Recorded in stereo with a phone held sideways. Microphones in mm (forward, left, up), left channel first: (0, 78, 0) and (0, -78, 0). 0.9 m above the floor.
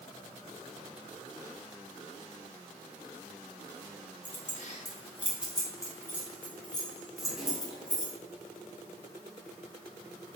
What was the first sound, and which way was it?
Keys jangling, 65° left (ahead or behind).